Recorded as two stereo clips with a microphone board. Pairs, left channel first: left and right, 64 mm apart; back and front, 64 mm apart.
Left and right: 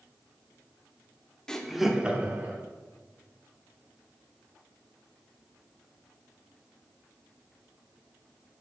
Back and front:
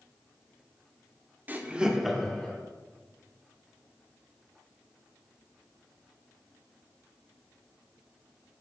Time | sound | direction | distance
1.5 | laughter | 20° left | 1.2 m